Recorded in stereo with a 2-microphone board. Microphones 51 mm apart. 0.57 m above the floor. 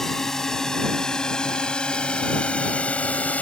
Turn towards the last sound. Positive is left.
turn(degrees=30)  # may be behind; listen again after turning